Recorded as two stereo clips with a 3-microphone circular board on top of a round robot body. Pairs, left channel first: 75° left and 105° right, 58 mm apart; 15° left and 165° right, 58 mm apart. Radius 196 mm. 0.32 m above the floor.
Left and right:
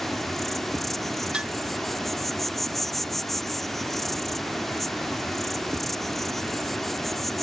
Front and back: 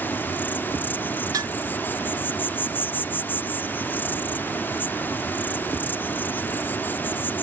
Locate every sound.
0.0 s an insect: 10° right
1.3 s dishes clattering: straight behind